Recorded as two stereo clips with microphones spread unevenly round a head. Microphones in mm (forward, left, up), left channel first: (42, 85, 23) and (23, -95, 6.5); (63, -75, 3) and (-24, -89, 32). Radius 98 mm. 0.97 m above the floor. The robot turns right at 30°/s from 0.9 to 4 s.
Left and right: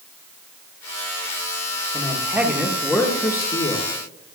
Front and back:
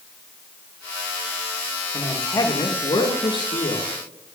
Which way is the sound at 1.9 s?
30° right.